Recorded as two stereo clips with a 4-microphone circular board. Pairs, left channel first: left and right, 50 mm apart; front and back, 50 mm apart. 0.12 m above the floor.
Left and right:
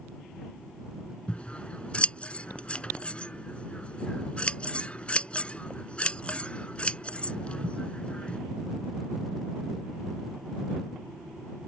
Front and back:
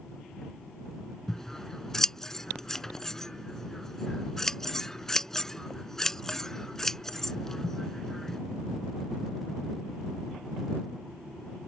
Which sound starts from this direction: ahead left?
Scissors, at 1.3 s.